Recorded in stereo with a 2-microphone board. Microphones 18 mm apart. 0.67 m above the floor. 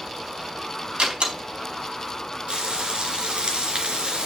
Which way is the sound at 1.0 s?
80° right.